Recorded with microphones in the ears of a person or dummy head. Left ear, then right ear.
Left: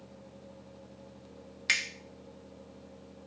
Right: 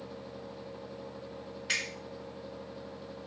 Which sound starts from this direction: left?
A finger snap, at 1.7 s.